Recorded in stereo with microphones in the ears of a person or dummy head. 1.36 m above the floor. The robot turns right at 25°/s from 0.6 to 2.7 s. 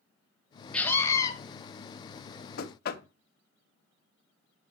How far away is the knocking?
About 0.8 m.